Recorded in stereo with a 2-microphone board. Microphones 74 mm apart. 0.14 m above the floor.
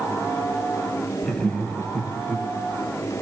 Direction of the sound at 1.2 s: 10° left (ahead or behind).